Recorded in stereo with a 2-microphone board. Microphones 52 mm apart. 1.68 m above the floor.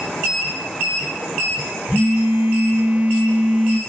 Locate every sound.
1.9 s a phone buzzing: 30° right (ahead or behind), 1.4 m